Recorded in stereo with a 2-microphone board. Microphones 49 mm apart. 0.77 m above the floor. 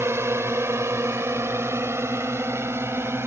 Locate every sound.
0.0 s a drone: 75° right (ahead or behind); by 3.3 s 65° right (ahead or behind)